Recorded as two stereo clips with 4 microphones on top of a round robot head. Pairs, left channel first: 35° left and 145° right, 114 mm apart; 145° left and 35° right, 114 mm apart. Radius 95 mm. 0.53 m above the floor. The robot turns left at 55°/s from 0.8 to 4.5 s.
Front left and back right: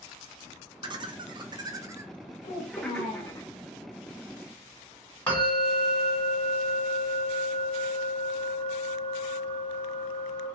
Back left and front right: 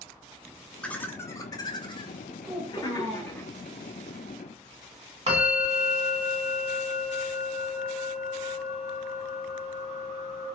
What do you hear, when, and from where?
0.8 s laughter: 135° right, 0.8 m; by 3.4 s 80° left, 0.8 m
2.4 s a child speaking: 45° left, 1.6 m; by 3.4 s 5° right, 1.6 m
5.3 s a bell: 40° right, 2.0 m